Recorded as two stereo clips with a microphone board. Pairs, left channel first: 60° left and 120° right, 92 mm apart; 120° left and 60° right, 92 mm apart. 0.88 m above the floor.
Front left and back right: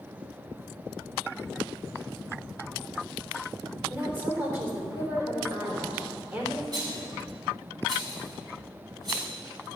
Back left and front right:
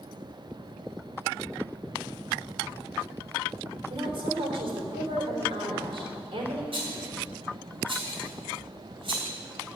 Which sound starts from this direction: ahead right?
A woman speaking, at 3.9 s.